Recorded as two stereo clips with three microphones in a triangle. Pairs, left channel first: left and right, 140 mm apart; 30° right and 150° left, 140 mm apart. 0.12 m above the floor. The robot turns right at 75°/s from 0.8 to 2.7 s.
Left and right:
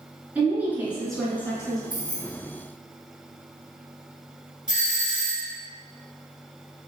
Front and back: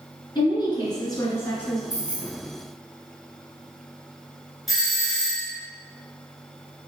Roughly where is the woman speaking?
Ahead.